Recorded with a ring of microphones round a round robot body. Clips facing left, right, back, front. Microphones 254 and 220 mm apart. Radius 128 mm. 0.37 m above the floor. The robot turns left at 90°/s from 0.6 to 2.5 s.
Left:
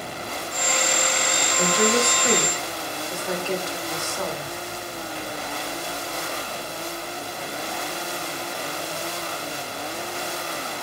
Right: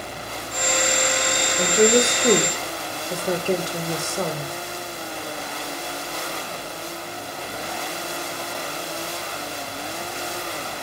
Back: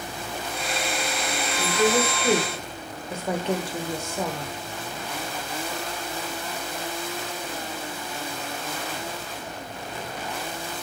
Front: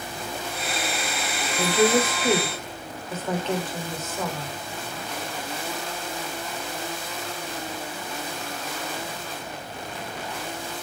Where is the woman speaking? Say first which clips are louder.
Right 5 dB, front 2 dB; 25° right, 1.1 m; by 4.5 s 110° right, 1.1 m.